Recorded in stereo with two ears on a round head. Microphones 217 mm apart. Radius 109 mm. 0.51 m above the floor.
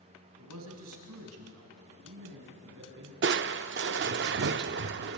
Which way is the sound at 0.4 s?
75° right (ahead or behind).